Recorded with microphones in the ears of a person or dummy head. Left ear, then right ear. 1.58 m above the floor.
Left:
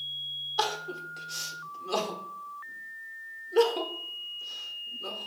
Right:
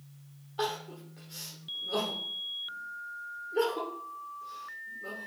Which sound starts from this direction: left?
Crying, at 0.6 s.